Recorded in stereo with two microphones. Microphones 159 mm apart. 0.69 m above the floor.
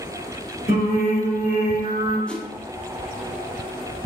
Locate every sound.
0.7 s singing: 65° right (ahead or behind), 1.9 m
2.3 s a whoosh: 5° left (ahead or behind), 0.5 m